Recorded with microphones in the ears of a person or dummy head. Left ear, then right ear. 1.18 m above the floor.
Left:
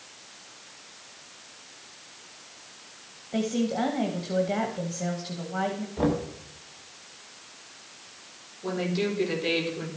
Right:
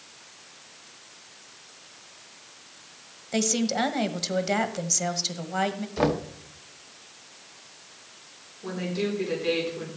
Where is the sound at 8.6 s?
5° left (ahead or behind), 4.5 m.